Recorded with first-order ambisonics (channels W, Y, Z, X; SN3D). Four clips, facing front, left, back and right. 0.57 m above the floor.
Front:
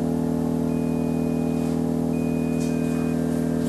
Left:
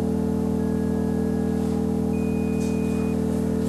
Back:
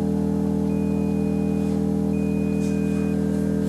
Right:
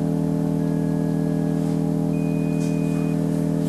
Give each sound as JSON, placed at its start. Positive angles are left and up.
{"t": 0.0, "sound": "an engine running", "azimuth_deg": -10, "distance_m": 1.3}